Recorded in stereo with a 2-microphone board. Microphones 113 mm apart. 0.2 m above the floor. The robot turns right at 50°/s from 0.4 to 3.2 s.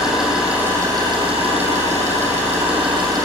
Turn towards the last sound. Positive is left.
turn(degrees=-35)